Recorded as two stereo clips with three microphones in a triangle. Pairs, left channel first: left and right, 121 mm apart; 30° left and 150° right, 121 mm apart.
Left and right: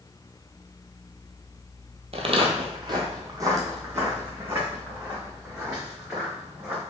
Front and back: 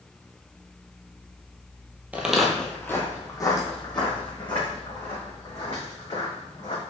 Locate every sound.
2.1 s footsteps: 70° right, 0.7 m; by 6.8 s 10° right, 3 m